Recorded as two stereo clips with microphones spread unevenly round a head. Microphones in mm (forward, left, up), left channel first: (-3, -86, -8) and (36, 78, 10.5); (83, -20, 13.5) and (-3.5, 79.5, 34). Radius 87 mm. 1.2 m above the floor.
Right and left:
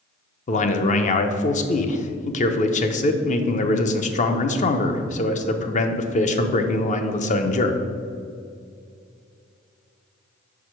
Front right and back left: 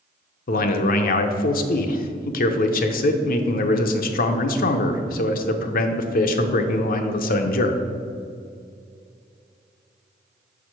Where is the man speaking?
55° right, 0.6 m.